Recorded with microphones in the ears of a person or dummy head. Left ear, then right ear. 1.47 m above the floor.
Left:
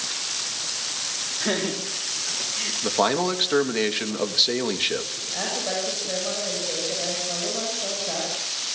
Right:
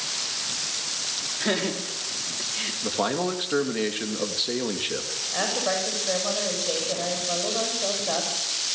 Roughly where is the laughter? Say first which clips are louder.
Left 1 dB; centre.